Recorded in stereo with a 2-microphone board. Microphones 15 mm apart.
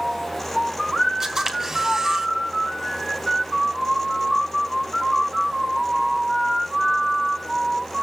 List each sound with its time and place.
1.2 s a camera shutter: 25° right (ahead or behind), 3 m